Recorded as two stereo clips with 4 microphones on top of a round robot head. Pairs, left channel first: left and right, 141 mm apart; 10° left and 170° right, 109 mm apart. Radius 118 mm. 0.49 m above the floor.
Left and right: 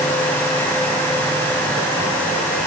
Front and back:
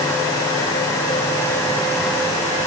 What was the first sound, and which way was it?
Only background noise.